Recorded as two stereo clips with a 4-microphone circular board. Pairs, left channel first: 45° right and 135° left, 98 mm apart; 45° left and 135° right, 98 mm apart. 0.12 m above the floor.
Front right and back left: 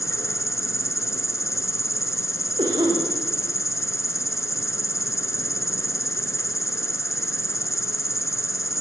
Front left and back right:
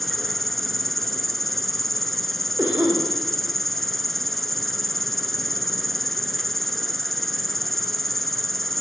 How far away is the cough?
About 8.5 m.